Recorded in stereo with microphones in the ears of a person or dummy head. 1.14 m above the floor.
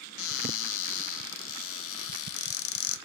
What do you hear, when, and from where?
0.2 s a cupboard door: 75° left (ahead or behind), 0.6 m